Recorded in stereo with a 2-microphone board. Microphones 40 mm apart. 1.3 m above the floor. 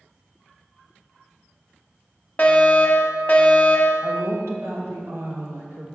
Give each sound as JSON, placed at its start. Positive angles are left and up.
{"t": 2.4, "sound": "a fire alarm", "side_deg": 30, "distance_m": 1.4}
{"t": 4.0, "sound": "a woman speaking", "side_deg": -80, "distance_m": 1.8}